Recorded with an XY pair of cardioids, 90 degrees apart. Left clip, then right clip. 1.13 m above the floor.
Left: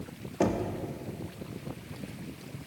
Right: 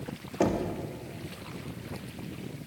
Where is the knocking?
5° right, 1.3 m.